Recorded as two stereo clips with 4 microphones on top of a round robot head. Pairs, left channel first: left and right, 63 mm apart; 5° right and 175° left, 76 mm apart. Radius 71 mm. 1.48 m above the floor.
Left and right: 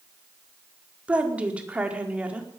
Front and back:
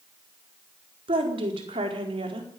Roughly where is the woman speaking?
Behind.